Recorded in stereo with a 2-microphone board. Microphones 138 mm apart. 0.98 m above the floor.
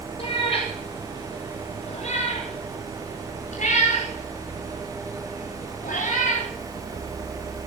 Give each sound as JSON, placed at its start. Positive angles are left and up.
{"t": 0.2, "sound": "a cat meowing", "side_deg": 45, "distance_m": 9.5}